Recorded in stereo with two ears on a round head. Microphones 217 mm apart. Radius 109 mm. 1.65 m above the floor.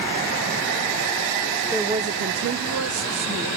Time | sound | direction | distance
1.7 | a woman speaking | 5° right (ahead or behind) | 0.6 m